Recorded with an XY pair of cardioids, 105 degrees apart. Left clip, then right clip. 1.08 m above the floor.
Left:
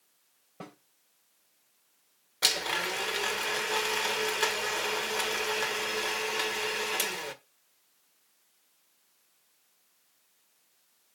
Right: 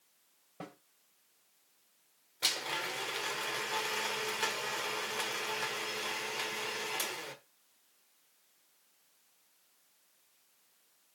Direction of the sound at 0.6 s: 5° left.